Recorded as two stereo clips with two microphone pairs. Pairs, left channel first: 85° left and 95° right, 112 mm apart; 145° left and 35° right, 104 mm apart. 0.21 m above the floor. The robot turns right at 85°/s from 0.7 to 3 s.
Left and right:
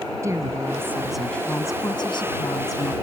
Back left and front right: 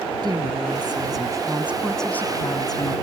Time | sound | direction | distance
0.2 | a woman speaking | 50° right | ?